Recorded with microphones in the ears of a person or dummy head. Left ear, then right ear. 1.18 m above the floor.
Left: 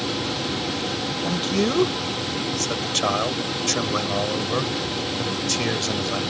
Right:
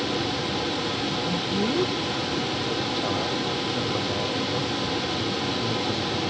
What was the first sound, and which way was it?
A man speaking, 65° left (ahead or behind).